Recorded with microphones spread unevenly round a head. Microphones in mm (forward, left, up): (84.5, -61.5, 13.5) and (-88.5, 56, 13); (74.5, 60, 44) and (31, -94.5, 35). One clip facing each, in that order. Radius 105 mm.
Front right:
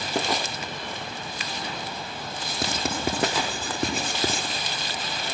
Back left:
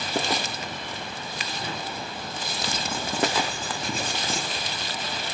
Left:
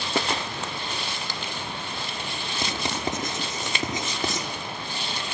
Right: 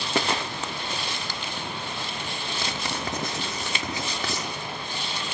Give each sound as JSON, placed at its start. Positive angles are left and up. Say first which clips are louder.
{"t": 2.6, "sound": "writing", "louder": "front right 5 dB, left 4 dB", "azimuth_deg": 0, "distance_m": 6.0}